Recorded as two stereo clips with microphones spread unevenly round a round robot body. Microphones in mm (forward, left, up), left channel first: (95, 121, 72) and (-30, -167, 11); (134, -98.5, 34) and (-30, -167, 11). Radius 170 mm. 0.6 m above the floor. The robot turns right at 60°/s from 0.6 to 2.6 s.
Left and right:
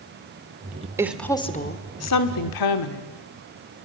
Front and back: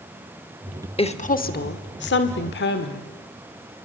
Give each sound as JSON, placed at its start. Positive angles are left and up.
{"t": 1.0, "sound": "a woman speaking", "azimuth_deg": -40, "distance_m": 2.0}